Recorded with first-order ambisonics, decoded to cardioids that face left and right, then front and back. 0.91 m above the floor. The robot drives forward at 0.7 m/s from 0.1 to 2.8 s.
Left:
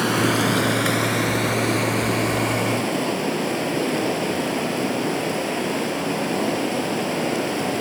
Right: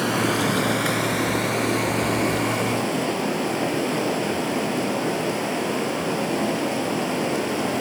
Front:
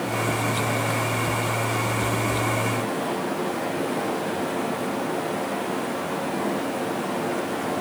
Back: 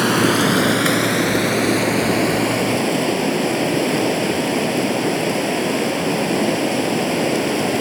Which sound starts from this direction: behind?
Running water, at 0.0 s.